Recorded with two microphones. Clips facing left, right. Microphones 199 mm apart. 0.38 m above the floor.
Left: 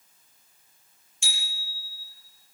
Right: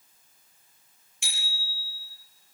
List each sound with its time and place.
1.2 s a bicycle bell: 65° right (ahead or behind), 6.5 m